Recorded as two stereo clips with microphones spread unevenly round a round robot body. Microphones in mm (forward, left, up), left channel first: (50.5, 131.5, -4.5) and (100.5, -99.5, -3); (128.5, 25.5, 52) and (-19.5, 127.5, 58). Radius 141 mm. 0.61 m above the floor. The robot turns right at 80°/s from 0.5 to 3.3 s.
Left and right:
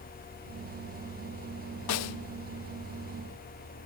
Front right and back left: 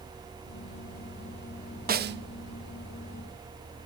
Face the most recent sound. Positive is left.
turn(degrees=-140)